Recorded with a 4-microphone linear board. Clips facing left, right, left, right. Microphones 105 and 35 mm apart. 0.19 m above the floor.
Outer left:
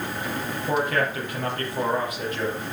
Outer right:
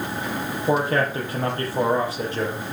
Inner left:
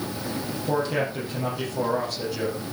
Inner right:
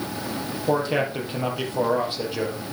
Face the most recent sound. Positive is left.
turn(degrees=-30)  # may be behind; listen again after turning